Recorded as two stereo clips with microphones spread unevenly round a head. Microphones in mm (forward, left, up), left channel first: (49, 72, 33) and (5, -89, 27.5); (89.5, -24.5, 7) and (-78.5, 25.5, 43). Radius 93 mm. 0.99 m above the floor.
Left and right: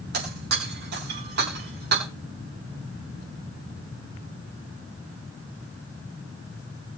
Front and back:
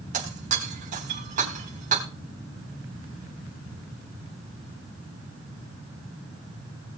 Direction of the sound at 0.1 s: 145° right.